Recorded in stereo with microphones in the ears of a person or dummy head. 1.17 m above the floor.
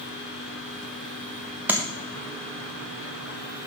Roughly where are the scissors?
No scissors in this recording.